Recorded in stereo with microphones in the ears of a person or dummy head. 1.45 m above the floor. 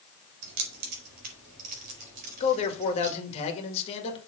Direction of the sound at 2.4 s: 40° left (ahead or behind).